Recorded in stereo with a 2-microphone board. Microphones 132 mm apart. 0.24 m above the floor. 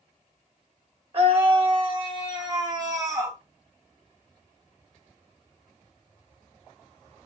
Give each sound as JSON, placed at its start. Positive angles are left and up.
{"t": 1.1, "sound": "a scream", "side_deg": -50, "distance_m": 2.5}